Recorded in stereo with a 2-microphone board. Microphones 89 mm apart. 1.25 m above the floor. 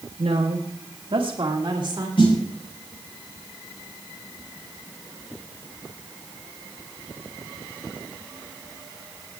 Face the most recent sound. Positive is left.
turn(degrees=70)  # may be behind; listen again after turning